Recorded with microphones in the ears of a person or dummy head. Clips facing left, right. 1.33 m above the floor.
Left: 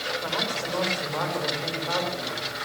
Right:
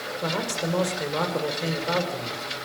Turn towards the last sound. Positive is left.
turn(degrees=-40)  # may be behind; listen again after turning